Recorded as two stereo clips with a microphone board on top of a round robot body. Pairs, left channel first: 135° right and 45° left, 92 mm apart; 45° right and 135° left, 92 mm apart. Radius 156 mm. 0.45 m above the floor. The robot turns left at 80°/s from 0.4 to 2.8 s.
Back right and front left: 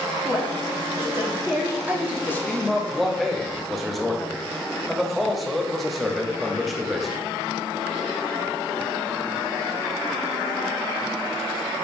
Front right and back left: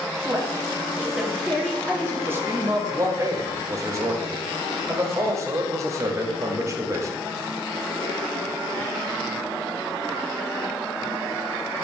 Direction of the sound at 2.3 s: Straight behind.